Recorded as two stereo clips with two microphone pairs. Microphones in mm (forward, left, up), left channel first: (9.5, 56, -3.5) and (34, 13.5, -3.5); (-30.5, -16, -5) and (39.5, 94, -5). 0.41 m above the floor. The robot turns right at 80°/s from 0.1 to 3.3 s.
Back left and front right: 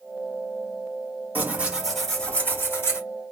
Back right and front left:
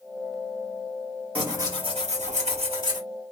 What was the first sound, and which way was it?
Tearing paper, 20° right.